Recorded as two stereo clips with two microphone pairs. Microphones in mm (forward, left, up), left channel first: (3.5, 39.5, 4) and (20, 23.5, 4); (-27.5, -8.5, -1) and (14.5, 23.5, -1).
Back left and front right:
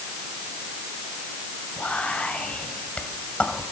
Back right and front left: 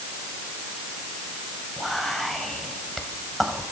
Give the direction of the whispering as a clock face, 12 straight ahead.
8 o'clock.